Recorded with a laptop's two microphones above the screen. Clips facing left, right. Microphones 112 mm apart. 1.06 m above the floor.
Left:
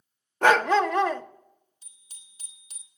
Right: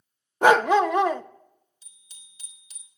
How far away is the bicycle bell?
About 2 m.